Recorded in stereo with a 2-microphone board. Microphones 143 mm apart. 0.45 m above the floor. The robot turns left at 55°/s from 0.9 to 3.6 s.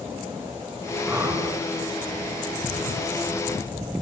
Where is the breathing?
10° right (ahead or behind), 2.5 m; by 1.5 s 35° right (ahead or behind), 2.5 m.